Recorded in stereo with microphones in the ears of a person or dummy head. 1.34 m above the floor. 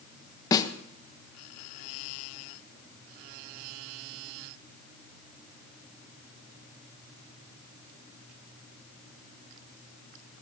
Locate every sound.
0.5 s a snare drum: 20° left (ahead or behind), 1.0 m